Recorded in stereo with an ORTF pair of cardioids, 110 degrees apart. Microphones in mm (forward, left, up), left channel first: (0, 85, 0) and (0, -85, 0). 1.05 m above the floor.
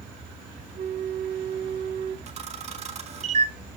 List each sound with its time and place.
0.8 s a flute: 55° right, 1.1 m
2.3 s a camera shutter: 40° right, 1.5 m